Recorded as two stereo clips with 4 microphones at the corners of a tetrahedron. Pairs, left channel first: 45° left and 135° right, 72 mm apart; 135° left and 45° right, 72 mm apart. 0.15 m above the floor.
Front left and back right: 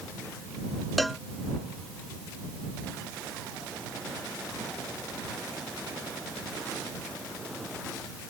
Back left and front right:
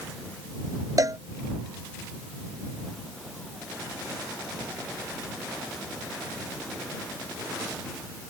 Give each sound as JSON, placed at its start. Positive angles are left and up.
{"t": 1.0, "sound": "a cowbell", "azimuth_deg": -45}